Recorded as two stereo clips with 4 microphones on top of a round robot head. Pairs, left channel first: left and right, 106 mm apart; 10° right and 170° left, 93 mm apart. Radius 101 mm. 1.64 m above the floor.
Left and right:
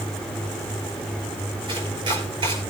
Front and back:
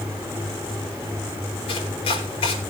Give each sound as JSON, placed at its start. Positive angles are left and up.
{"t": 1.7, "sound": "chopping", "azimuth_deg": -40, "distance_m": 4.5}